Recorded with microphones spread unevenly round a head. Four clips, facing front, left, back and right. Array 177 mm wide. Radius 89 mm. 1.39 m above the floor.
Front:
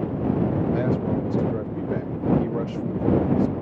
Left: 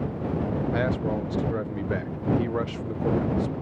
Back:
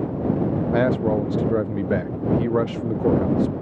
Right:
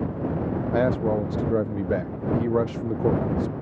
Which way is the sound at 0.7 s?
150° right.